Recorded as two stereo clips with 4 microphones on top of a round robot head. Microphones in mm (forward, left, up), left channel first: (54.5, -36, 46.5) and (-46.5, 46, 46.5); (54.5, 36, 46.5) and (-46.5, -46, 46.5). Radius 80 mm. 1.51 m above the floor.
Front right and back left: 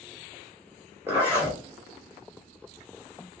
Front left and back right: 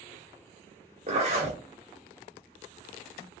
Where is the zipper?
155° right, 1.2 m.